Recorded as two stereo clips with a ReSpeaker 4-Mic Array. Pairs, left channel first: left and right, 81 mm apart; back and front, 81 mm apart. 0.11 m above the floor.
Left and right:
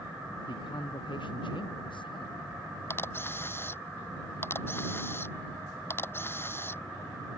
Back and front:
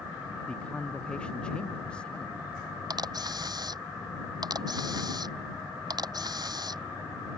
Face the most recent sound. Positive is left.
turn(degrees=30)